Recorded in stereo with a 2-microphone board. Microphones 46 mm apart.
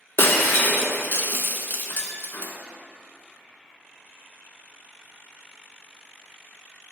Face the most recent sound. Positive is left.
turn(degrees=55)  # may be behind; listen again after turning